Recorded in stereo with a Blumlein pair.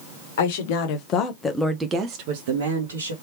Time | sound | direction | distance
0.4 | a woman speaking | 55° left | 1.6 m